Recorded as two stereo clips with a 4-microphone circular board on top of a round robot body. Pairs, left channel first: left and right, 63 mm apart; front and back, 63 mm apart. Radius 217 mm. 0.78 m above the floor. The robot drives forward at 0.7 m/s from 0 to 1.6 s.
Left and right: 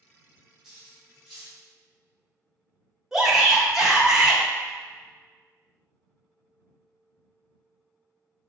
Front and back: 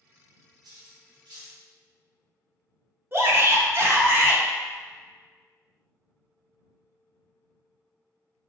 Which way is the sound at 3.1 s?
170° right.